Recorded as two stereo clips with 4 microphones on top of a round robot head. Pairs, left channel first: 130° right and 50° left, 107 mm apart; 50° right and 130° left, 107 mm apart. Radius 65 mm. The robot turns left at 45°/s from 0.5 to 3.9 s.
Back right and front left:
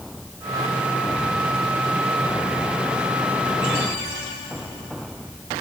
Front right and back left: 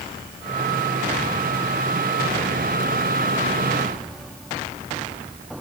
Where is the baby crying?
No baby crying in this recording.